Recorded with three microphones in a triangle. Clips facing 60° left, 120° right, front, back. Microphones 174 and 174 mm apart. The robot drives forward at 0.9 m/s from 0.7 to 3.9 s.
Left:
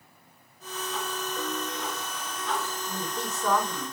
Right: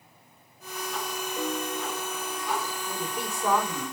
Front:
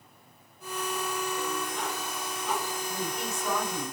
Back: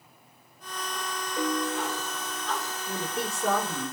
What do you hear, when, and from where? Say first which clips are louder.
1.4 s a piano: right 5 dB, back 4 dB; 160° left, 1.1 m; by 2.7 s 170° left, 2 m
2.9 s a woman speaking: right 1 dB, back 1 dB; 165° left, 5 m